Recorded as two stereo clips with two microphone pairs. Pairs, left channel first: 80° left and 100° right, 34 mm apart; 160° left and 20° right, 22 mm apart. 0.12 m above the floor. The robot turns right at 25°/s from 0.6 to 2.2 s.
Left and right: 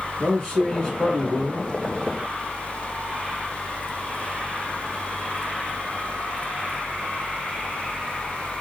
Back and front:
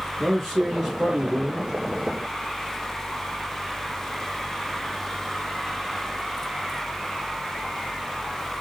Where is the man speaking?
80° left, 1.7 m; by 1.7 s 110° left, 1.7 m.